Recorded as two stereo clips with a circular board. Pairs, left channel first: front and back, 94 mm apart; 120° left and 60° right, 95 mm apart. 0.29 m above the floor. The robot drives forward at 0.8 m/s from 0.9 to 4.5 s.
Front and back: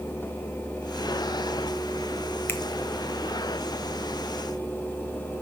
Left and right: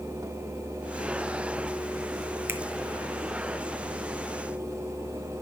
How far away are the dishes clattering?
No dishes clattering in this recording.